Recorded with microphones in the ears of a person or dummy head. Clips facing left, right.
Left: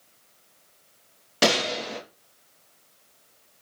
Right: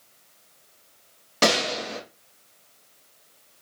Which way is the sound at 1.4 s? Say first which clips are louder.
Even; 5° left (ahead or behind).